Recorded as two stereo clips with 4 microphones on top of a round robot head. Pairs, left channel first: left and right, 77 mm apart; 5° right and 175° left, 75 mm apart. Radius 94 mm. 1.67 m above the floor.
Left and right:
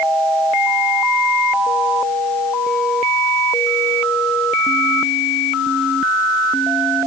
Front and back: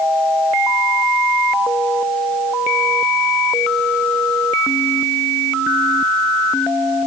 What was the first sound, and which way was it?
Only background noise.